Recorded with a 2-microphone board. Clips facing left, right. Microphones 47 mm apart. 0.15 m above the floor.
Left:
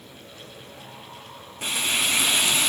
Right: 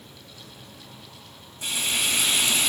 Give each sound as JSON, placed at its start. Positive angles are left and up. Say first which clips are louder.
{"t": 1.6, "sound": "frying", "louder": "left 2 dB", "side_deg": 55, "distance_m": 1.8}